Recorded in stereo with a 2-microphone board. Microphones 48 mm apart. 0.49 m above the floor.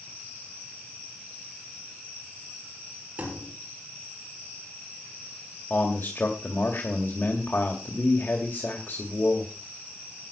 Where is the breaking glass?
I don't hear breaking glass.